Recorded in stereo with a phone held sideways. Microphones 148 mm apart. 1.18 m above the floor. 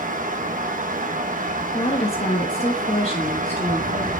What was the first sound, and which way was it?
A fan, 65° right (ahead or behind).